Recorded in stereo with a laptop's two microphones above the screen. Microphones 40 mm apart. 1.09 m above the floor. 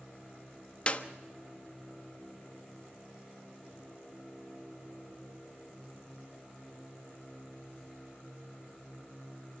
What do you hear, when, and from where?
0.9 s a clap: 30° left (ahead or behind), 1.1 m